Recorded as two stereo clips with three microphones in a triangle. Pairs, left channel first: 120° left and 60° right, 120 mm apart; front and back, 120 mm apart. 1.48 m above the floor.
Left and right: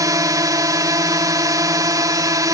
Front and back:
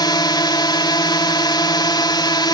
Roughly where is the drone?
Ahead.